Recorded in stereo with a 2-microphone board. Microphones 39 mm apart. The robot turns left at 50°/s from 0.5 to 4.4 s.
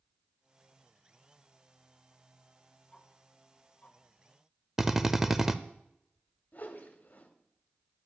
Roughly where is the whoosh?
Left.